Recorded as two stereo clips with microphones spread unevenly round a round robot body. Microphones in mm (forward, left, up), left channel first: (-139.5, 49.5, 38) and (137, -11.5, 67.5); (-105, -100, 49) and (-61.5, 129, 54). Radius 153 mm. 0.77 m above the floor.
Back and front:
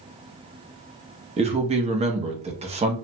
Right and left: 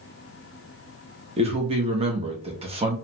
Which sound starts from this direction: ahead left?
A man speaking, at 1.4 s.